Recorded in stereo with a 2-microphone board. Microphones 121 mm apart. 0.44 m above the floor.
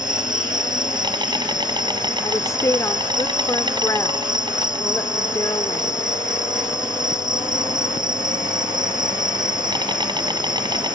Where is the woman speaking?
25° left (ahead or behind).